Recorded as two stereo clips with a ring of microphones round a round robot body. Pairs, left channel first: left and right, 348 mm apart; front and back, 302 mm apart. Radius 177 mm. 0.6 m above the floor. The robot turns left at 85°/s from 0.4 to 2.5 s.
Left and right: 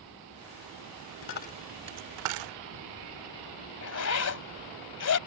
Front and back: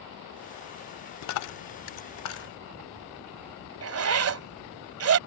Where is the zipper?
140° left.